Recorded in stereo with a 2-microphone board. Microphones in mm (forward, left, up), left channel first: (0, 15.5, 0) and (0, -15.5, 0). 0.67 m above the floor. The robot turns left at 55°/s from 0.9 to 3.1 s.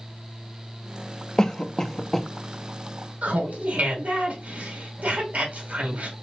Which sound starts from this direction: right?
Laughter, at 3.2 s.